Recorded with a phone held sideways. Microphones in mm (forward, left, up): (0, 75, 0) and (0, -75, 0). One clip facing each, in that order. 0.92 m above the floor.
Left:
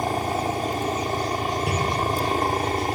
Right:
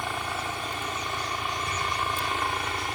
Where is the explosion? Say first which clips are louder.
Left 6 dB; 75° left (ahead or behind).